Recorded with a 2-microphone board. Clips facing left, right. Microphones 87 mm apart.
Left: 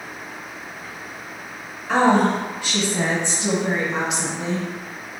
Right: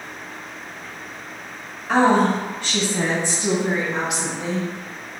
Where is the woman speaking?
5° right (ahead or behind), 1.0 m; by 4.7 s 30° left (ahead or behind), 2 m.